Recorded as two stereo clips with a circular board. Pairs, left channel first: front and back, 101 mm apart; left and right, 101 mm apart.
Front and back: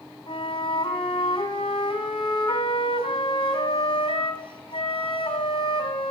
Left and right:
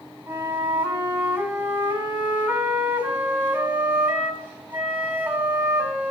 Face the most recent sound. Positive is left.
turn(degrees=-15)